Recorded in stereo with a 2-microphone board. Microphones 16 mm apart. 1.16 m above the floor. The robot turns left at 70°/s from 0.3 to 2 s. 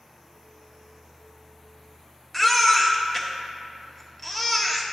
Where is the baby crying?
20° left (ahead or behind), 0.7 m.